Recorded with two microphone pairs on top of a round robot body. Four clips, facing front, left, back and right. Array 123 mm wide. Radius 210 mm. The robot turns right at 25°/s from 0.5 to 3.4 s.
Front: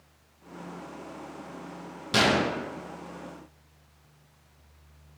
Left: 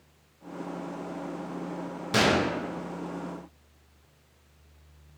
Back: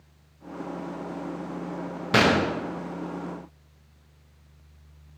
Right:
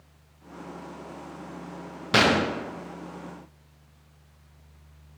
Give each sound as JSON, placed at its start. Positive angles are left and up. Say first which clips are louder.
{"t": 2.1, "sound": "a gunshot", "louder": "right 2 dB, back 3 dB", "azimuth_deg": -125, "distance_m": 0.7}